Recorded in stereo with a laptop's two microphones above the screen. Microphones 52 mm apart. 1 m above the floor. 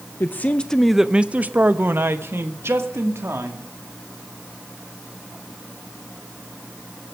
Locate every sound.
0.2 s a man speaking: 40° left (ahead or behind), 0.7 m; by 3.7 s 65° right (ahead or behind), 2 m